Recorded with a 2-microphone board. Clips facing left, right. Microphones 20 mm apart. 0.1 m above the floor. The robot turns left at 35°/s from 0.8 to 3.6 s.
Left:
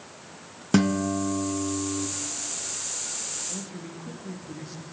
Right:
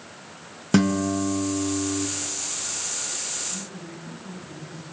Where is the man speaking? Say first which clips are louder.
Right 1 dB; 65° left (ahead or behind), 5.5 m.